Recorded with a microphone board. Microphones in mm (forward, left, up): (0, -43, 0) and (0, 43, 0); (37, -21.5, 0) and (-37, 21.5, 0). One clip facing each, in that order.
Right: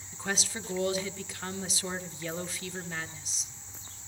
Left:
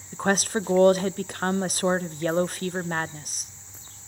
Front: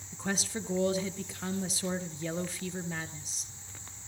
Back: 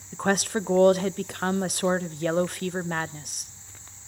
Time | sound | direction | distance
0.1 | a woman speaking | 125° left | 0.6 m